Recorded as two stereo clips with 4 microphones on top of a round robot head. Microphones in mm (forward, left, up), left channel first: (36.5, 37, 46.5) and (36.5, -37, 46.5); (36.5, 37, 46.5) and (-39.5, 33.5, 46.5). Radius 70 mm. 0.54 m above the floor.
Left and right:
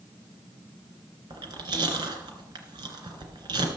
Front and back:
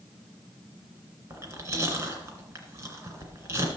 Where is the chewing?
125° right, 2 m.